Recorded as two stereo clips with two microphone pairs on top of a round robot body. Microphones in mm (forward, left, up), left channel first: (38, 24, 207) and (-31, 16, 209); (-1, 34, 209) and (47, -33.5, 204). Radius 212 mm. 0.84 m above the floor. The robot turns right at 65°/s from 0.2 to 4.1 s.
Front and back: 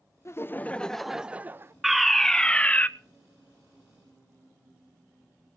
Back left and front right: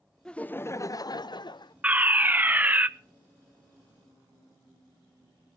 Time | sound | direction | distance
0.2 | laughter | 45° left | 0.8 m
1.8 | a fire alarm | 90° right | 1.3 m